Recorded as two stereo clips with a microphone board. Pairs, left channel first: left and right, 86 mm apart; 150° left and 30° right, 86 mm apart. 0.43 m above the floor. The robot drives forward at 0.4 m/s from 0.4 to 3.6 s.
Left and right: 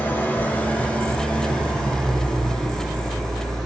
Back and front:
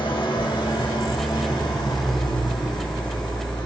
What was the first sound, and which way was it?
An engine running, 155° left.